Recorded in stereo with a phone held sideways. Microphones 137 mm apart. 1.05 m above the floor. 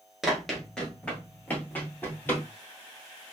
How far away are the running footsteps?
About 1.0 m.